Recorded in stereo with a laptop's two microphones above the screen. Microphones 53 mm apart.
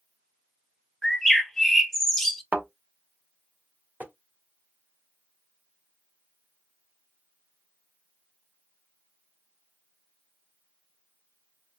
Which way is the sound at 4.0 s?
40° right (ahead or behind).